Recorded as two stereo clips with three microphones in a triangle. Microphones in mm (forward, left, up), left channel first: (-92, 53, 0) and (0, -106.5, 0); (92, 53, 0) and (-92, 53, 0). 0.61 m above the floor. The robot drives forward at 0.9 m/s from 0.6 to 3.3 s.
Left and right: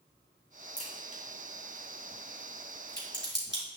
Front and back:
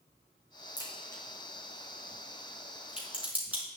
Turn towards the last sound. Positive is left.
turn(degrees=100)